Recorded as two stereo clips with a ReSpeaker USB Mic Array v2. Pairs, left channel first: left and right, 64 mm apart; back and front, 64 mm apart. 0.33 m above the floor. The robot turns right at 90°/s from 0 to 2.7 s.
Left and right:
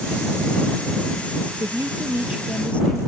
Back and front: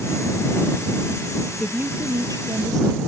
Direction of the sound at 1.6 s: 80° right.